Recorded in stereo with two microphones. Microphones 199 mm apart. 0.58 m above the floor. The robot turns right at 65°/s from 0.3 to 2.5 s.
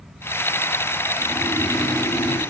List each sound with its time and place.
1.2 s snoring: 30° right, 2.5 m; by 2.4 s 50° left, 2.5 m